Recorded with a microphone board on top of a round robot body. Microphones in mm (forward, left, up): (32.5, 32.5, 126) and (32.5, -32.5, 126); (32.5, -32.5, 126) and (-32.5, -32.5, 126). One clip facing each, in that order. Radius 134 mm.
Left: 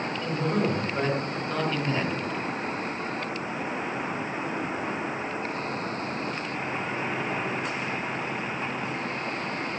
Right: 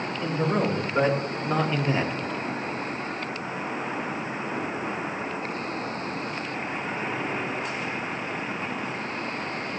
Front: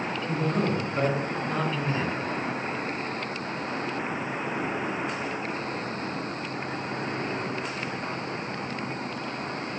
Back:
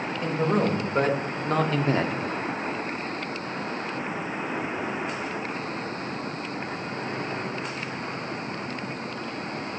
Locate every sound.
0.2 s a man speaking: 160° right, 2.5 m; by 2.1 s 170° right, 1.1 m